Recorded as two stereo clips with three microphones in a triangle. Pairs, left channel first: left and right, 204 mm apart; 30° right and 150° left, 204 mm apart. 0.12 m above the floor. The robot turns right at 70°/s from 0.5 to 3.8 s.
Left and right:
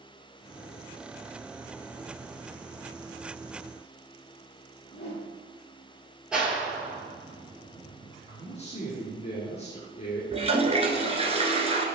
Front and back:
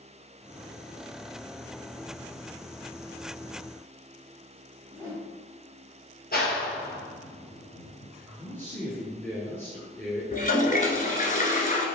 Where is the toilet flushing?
45° right, 1.2 m.